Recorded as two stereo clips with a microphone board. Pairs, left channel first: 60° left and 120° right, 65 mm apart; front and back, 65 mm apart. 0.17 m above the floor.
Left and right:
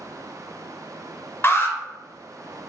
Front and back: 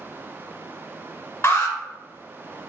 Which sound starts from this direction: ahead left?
An alarm, at 1.4 s.